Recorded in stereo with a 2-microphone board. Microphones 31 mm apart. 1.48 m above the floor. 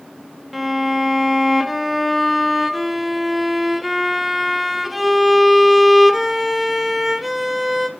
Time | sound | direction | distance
0.5 | a violin | 5° right (ahead or behind) | 0.6 m